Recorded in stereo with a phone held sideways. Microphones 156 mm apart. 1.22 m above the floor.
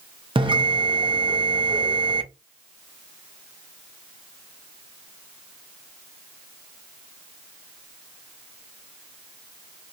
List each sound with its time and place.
0.3 s a bell: 35° right (ahead or behind), 0.7 m